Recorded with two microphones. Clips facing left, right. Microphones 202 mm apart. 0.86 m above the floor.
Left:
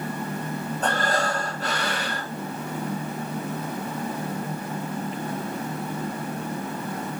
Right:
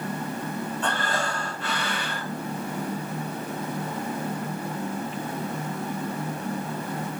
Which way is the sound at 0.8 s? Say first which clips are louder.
Left 6 dB; 40° left (ahead or behind).